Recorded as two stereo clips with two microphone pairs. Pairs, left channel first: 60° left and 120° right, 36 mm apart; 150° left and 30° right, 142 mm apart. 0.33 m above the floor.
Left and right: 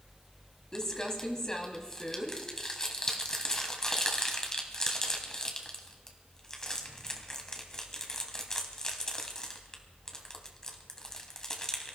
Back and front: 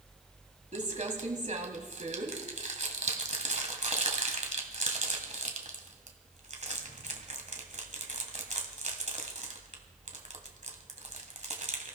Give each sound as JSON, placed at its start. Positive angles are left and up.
{"t": 0.7, "sound": "crumpling", "azimuth_deg": -10, "distance_m": 1.8}